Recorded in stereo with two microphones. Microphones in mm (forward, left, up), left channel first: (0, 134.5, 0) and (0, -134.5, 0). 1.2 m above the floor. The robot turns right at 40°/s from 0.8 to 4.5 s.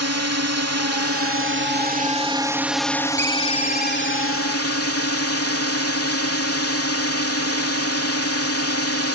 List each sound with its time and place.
0.0 s a drone: 80° right; by 9.2 s 70° left
3.2 s a ringtone: 5° left; by 4.4 s 55° left